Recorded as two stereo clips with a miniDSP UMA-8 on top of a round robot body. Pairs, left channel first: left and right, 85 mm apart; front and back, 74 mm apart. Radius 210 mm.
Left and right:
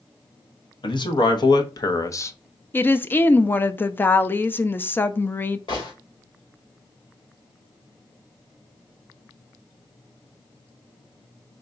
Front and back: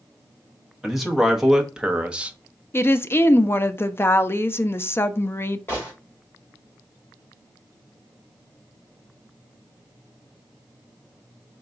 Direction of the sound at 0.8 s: 90° left.